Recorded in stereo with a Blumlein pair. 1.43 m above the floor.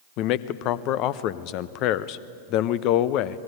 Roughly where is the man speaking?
Ahead left.